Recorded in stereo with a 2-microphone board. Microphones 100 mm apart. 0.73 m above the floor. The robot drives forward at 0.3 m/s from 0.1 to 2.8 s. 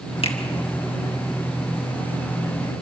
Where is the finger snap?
65° left (ahead or behind), 2.0 m.